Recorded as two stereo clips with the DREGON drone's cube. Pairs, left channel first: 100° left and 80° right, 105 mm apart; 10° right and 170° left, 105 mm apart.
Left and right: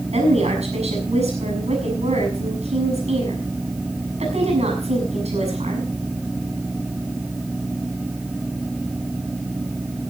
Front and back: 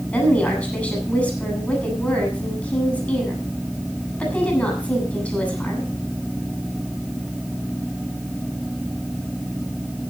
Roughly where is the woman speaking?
Right.